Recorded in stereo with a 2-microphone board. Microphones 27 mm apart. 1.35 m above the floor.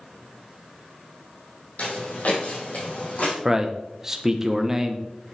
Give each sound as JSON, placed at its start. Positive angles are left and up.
{"t": 1.8, "sound": "footsteps", "side_deg": 65, "distance_m": 3.0}
{"t": 3.5, "sound": "a man speaking", "side_deg": -20, "distance_m": 1.0}